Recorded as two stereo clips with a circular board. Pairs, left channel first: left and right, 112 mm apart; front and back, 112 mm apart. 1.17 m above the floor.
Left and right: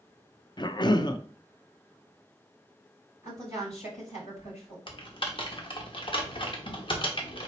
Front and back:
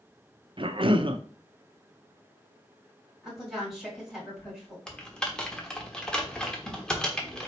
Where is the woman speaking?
95° left, 3.5 m.